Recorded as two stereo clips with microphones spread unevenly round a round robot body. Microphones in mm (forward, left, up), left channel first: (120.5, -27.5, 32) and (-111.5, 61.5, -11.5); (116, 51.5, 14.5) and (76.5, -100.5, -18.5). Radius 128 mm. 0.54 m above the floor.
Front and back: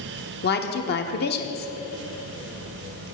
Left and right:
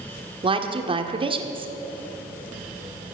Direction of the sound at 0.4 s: 70° right.